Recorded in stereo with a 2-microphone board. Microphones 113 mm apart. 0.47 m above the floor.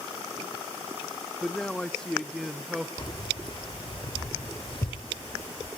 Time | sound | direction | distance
1.4 | a man speaking | 10° left (ahead or behind) | 0.7 m
3.0 | keys jangling | 50° left (ahead or behind) | 1.4 m